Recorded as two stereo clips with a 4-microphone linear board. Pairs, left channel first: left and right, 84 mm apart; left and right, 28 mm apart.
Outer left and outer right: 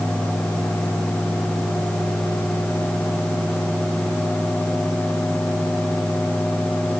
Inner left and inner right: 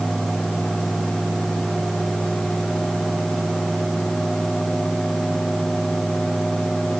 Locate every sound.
Only background noise.